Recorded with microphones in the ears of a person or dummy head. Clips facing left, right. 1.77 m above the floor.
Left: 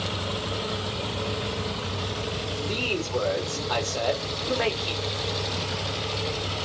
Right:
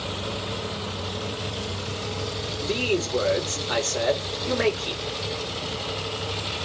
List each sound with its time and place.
2.6 s a man speaking: 30° right (ahead or behind), 5 m